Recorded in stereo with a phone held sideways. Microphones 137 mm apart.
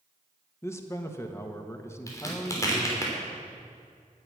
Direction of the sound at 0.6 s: 20° left (ahead or behind).